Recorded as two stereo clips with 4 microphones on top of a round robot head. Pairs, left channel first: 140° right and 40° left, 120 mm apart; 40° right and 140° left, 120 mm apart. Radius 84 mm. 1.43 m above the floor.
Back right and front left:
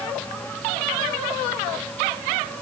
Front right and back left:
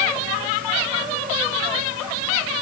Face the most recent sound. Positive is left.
No sound to turn to.